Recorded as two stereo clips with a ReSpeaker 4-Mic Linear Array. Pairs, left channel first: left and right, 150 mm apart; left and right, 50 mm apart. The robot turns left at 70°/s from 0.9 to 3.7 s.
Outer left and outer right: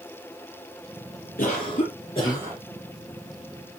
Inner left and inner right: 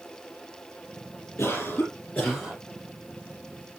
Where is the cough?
90° left, 5.5 m; by 2.6 s 5° left, 5.5 m.